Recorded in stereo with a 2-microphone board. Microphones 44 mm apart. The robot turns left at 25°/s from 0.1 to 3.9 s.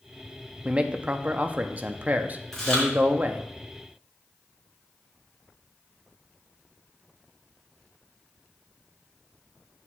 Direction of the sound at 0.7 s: 40° right.